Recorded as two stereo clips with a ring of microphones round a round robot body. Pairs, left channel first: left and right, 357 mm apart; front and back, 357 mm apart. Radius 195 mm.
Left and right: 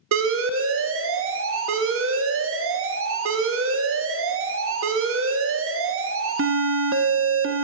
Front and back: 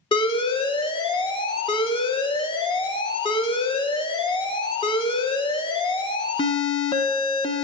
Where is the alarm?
70° right, 0.6 m.